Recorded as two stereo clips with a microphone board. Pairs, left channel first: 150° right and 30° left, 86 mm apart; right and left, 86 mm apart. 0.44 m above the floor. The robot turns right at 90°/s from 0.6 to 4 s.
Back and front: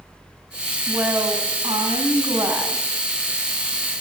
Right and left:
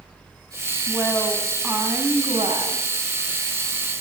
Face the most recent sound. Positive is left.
turn(degrees=-130)